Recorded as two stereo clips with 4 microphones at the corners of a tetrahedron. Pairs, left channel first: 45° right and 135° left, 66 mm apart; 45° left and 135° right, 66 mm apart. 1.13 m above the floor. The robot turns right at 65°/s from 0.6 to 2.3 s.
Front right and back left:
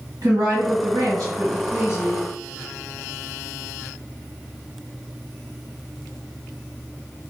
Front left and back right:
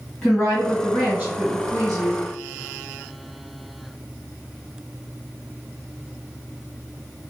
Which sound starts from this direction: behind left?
A woman speaking, at 0.2 s.